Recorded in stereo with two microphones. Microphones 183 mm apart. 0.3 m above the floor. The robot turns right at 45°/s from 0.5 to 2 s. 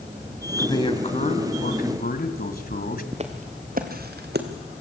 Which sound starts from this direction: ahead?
A man speaking, at 0.6 s.